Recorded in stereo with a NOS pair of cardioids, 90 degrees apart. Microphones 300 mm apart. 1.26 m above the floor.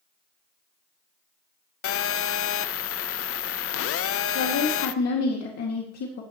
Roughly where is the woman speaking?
Ahead left.